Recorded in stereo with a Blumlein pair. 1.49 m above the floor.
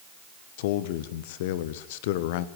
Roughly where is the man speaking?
Ahead left.